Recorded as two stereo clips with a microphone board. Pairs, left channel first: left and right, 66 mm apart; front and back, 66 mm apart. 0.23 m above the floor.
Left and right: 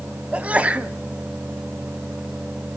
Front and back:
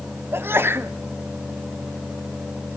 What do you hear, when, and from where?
0.3 s a sneeze: 150° right, 1.3 m